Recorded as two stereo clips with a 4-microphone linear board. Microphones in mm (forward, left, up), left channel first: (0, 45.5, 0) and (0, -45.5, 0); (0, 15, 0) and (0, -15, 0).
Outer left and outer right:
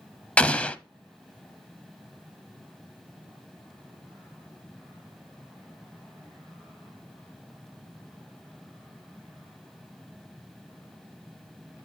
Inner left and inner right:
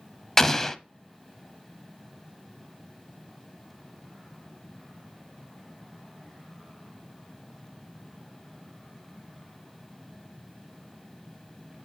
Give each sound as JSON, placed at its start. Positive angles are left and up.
{"t": 0.4, "sound": "an explosion", "side_deg": 15, "distance_m": 0.6}